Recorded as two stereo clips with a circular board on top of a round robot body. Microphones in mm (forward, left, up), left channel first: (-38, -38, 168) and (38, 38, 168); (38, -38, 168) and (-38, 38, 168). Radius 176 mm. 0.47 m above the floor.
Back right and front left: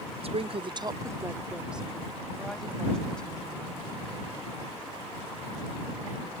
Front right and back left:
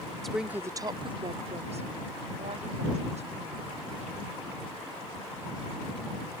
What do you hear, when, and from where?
0.2 s a woman speaking: 40° left; by 3.8 s 145° left